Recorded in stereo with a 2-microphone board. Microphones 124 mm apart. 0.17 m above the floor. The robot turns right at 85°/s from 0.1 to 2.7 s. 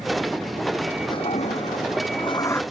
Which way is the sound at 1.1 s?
40° left.